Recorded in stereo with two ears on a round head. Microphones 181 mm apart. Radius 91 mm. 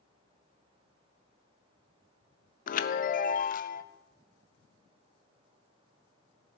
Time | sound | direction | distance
2.7 | a chime | 45° left (ahead or behind) | 0.6 m